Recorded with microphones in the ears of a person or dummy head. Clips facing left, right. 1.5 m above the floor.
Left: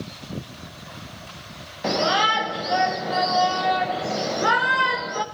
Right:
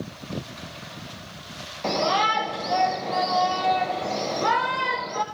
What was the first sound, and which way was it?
A shout, 5° left (ahead or behind).